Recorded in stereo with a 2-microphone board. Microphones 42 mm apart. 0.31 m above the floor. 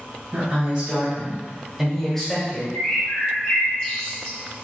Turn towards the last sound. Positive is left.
turn(degrees=20)  # may be behind; listen again after turning